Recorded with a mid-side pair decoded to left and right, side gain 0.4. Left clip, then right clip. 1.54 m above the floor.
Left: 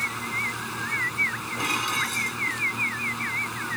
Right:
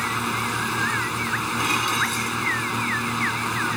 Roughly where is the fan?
Ahead right.